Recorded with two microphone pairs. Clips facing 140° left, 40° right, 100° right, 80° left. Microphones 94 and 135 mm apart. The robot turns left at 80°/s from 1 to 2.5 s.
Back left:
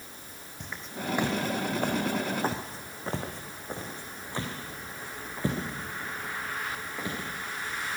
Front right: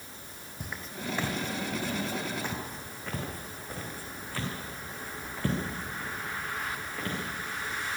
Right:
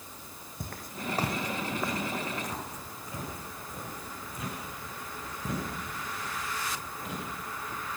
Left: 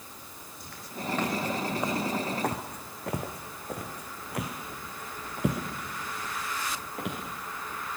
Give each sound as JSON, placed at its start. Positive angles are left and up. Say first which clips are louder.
{"t": 0.6, "sound": "footsteps", "louder": "back left 2 dB, even", "azimuth_deg": -120, "distance_m": 2.5}